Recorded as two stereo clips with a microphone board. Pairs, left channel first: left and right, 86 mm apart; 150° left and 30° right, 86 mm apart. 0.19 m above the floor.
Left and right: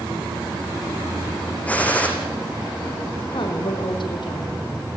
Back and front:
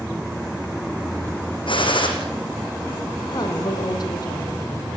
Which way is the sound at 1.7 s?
165° left.